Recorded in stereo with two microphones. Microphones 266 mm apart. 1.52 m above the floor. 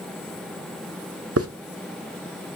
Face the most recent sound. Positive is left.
turn(degrees=-60)  # may be behind; listen again after turning